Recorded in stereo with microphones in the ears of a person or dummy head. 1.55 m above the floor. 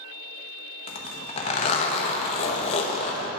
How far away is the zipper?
About 1.0 m.